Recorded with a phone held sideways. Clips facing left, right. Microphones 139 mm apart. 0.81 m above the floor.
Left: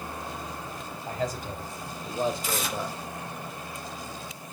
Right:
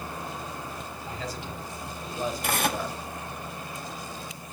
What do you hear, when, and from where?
1.1 s a man speaking: 50° left (ahead or behind), 4 m; by 3.0 s 5° left (ahead or behind), 2 m
2.4 s tearing paper: 60° right (ahead or behind), 0.7 m